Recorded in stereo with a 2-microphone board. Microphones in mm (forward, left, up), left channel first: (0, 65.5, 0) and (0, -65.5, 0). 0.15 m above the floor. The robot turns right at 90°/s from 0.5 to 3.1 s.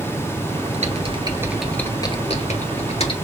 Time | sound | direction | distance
0.7 | typing on a keyboard | 65° right (ahead or behind) | 1.2 m